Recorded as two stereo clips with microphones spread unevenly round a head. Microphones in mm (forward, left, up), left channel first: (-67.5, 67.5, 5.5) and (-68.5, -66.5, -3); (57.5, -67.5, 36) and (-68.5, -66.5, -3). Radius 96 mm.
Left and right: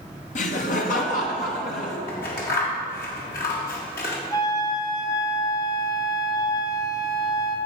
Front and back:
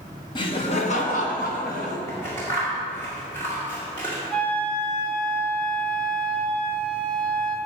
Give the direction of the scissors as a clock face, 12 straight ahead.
9 o'clock.